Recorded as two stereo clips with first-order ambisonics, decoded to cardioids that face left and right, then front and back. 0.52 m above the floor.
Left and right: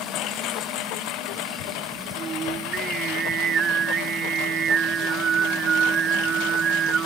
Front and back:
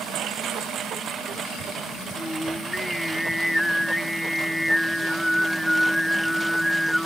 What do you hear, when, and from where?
0.0 s a lawn mower: 130° left; by 7.0 s 95° left
2.2 s singing: 90° right